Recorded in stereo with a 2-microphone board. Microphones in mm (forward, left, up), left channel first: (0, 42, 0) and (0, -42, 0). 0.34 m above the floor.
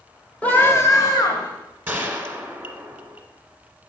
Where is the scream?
15° left (ahead or behind), 0.9 m; by 1.5 s 50° left (ahead or behind), 1.4 m.